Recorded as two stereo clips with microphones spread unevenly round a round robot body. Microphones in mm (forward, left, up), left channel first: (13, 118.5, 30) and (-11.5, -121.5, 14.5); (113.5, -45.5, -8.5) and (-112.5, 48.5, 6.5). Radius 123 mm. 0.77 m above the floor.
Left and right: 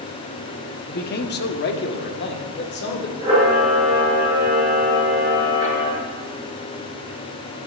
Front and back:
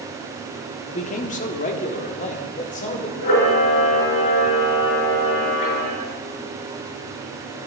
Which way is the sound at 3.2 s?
20° right.